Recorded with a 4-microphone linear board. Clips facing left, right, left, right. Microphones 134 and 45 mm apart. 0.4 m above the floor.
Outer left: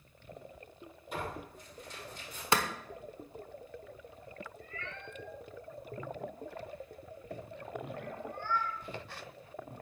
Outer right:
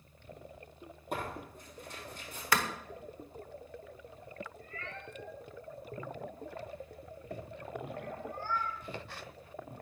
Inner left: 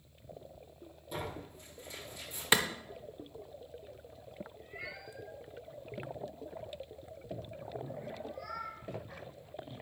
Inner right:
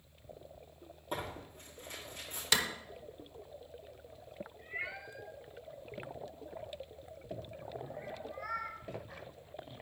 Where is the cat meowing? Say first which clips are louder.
Even, inner right 7 dB; 40° right (ahead or behind), 1.2 m.